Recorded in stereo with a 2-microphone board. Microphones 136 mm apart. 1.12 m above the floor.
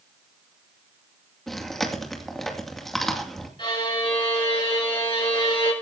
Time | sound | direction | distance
1.5 | chewing | centre (ahead or behind) | 2.5 m
3.6 | a violin | 40° left (ahead or behind) | 6.5 m